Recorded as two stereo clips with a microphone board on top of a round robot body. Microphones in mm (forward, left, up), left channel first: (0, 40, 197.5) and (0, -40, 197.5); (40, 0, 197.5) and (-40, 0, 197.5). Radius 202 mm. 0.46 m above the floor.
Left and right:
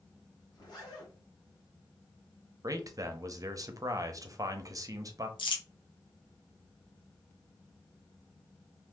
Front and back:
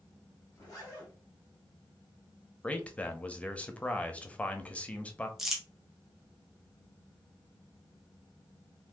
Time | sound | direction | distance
0.5 | a zipper | 55° left | 2 m
2.6 | a man speaking | 70° right | 0.9 m
5.4 | crumpling | 95° left | 1.2 m